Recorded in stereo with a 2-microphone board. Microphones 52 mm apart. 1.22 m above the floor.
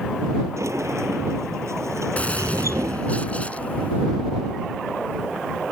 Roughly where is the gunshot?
Left.